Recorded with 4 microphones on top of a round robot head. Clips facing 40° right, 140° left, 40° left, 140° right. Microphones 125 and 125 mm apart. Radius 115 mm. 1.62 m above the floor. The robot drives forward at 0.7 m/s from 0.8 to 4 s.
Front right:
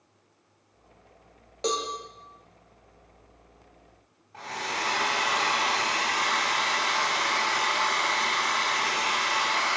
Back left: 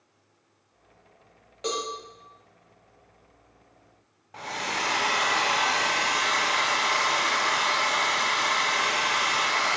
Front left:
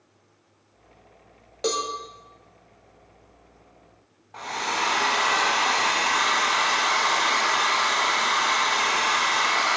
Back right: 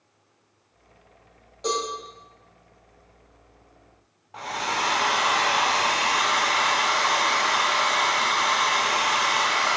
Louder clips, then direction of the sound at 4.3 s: Back left 1 dB, even; 135° left.